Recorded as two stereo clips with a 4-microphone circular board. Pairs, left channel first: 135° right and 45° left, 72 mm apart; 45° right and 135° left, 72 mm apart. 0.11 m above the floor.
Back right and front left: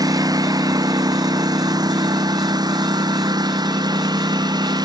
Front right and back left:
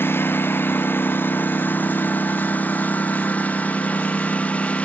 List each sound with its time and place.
0.0 s a lawn mower: 15° left; by 4.8 s 30° left